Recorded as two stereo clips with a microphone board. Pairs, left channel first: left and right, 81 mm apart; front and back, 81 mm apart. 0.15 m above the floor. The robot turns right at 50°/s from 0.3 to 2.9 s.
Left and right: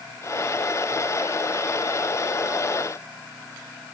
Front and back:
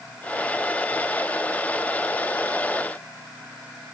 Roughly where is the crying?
No crying in this recording.